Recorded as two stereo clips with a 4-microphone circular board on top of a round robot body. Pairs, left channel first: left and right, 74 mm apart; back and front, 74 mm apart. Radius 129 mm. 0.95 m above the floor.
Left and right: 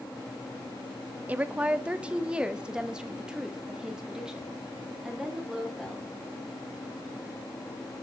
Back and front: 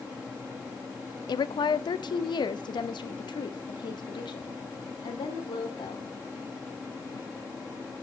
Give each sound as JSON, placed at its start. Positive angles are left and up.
{"t": 1.3, "sound": "a woman speaking", "azimuth_deg": -160, "distance_m": 0.8}